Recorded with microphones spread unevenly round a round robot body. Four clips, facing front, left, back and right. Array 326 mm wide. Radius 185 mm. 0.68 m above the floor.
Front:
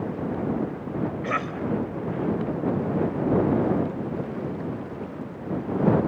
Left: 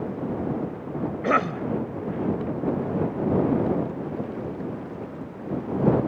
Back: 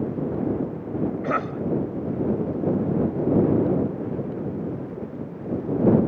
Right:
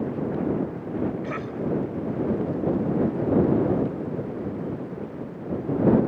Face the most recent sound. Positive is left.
turn(degrees=90)